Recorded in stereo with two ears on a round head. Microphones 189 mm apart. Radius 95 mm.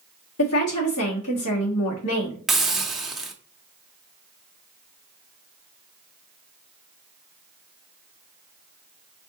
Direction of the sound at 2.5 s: Centre (ahead or behind).